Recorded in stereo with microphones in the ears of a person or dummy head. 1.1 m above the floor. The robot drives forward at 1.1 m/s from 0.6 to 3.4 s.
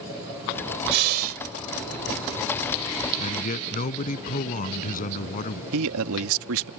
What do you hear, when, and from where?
0.9 s breathing: 60° right (ahead or behind); by 1.4 s 50° right (ahead or behind)
3.2 s a man speaking: 45° left (ahead or behind)
5.7 s a man speaking: 80° right